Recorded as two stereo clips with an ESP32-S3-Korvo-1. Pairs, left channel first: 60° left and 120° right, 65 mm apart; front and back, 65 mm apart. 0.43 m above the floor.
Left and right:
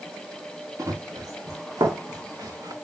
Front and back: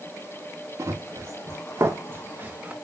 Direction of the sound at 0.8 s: 150° right.